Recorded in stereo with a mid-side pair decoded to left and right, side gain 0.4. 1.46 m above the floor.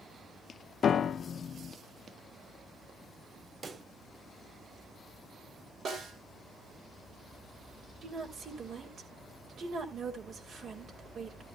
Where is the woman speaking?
60° right, 3.5 m.